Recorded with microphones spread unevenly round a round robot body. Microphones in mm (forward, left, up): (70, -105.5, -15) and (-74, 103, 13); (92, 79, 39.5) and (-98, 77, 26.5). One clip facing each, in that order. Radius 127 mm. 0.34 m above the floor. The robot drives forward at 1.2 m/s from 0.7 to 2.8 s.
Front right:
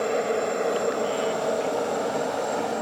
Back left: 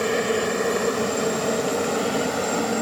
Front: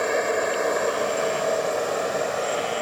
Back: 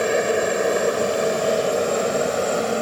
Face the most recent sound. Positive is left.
turn(degrees=160)